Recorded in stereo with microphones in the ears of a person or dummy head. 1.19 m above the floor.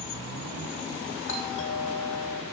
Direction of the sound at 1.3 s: 70° left (ahead or behind).